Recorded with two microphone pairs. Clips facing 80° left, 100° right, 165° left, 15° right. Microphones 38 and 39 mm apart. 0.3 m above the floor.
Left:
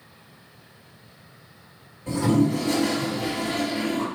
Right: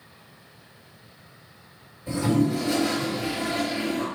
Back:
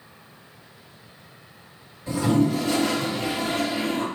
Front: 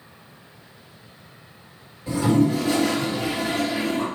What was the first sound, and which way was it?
A toilet flushing, 65° left.